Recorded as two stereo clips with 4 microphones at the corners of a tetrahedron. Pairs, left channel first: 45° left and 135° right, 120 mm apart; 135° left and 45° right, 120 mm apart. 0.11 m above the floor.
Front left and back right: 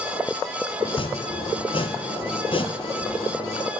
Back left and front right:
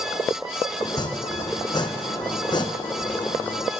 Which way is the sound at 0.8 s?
85° left.